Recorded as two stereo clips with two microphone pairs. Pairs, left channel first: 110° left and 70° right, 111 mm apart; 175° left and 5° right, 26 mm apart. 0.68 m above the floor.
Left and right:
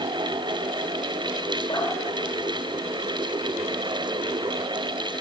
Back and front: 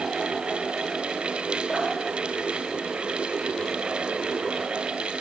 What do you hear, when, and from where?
1.7 s dripping: 70° left, 2.5 m